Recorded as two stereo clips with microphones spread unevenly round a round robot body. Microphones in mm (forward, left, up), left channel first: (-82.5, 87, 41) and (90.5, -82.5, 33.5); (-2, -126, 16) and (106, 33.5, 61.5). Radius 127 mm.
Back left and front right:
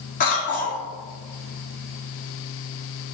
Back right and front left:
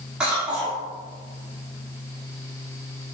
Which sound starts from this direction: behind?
A cough, at 0.2 s.